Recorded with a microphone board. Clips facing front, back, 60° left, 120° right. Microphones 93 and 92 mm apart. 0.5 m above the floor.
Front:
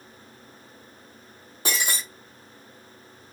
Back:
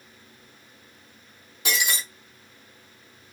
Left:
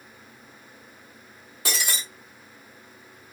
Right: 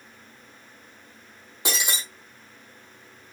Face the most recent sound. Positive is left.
turn(degrees=-50)